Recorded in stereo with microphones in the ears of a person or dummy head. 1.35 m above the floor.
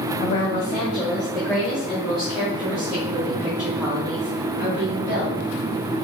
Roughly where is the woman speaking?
Left.